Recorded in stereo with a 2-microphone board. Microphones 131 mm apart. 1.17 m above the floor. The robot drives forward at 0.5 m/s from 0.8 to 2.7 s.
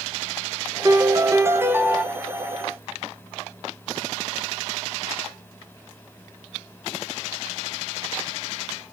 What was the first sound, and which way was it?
A piano, 25° right (ahead or behind).